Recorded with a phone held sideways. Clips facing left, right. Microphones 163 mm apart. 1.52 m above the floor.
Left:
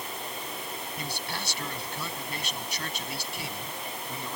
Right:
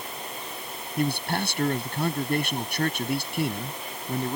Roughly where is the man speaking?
Right.